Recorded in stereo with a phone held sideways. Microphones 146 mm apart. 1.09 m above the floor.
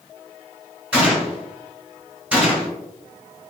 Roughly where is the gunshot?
Centre.